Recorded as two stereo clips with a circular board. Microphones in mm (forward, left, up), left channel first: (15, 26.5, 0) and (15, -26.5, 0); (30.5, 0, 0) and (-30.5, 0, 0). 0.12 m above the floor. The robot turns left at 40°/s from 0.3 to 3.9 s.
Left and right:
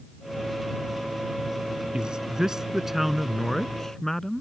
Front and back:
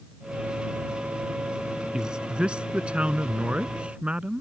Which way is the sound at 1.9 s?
125° right.